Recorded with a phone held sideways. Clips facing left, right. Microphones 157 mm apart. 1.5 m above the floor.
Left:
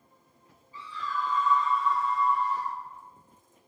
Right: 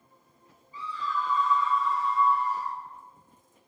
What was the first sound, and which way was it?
A scream, 75° left (ahead or behind).